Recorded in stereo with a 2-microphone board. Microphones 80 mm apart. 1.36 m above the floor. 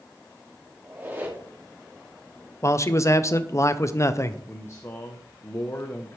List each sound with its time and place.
0.8 s a squeak: 25° right (ahead or behind), 2.5 m
2.6 s a man speaking: 40° left (ahead or behind), 0.6 m
4.5 s a man speaking: 35° left (ahead or behind), 0.8 m